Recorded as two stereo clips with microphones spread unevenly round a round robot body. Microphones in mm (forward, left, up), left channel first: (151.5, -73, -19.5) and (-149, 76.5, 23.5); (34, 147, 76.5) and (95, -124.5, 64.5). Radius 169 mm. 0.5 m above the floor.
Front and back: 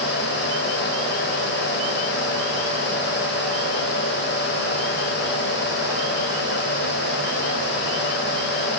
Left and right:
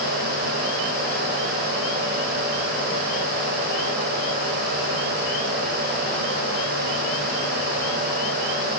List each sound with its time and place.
Only background noise.